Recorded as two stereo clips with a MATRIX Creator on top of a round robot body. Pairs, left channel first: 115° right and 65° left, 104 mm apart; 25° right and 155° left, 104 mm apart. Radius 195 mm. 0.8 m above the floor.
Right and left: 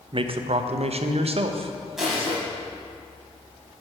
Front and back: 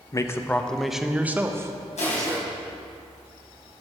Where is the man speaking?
35° left, 0.7 m; by 2.5 s 105° left, 1.3 m.